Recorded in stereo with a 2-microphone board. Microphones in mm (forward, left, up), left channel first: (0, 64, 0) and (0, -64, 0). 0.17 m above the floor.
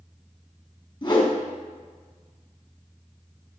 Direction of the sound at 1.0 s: 40° left (ahead or behind).